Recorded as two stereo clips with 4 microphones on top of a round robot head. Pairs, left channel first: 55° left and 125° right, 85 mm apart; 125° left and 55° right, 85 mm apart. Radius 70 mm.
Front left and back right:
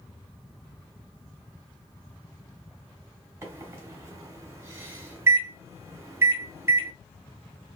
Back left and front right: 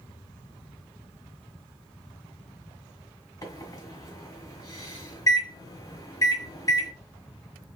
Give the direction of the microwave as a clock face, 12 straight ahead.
6 o'clock.